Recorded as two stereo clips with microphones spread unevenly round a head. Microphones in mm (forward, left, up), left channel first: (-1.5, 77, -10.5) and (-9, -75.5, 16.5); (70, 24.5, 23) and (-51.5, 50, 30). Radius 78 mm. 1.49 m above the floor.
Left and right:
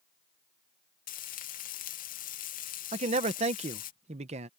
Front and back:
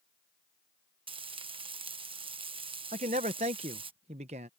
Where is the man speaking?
140° right.